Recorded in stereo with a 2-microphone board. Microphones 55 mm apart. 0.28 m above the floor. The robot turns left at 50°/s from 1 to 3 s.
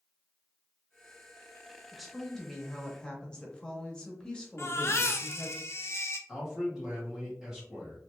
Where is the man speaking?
10° right (ahead or behind), 1.8 m.